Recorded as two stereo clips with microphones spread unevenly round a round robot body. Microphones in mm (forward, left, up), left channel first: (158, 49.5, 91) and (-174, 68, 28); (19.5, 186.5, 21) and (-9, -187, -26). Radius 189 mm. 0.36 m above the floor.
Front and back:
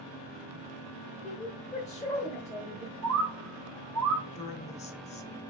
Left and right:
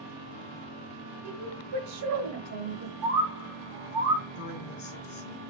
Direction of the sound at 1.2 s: 80° right.